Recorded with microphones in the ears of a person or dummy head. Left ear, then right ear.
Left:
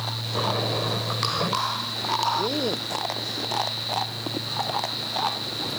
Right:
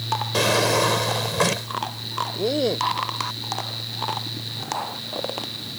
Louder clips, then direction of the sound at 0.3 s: Right 6 dB; 75° right (ahead or behind).